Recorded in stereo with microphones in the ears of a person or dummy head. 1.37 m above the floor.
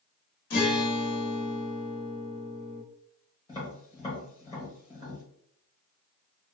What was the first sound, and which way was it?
A guitar, 55° left (ahead or behind).